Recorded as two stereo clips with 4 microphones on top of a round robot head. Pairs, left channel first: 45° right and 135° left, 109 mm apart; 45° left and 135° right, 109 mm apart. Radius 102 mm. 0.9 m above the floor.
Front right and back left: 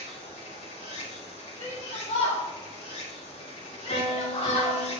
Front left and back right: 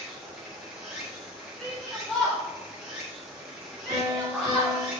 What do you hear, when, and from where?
0.0 s running water: 55° right, 4 m
1.6 s a shout: 45° right, 2 m
3.9 s a piano: 80° right, 3.5 m